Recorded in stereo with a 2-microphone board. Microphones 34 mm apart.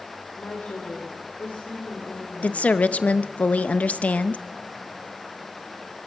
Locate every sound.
0.4 s a woman speaking: 65° left (ahead or behind), 3.5 m
2.4 s a woman speaking: 40° left (ahead or behind), 0.8 m